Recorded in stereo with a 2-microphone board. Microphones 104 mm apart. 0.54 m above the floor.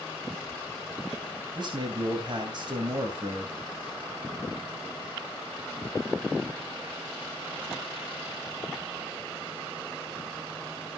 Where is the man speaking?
45° right (ahead or behind), 3 m.